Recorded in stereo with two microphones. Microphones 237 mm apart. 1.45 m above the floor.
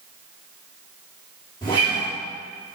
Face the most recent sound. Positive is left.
turn(degrees=20)  # may be behind; listen again after turning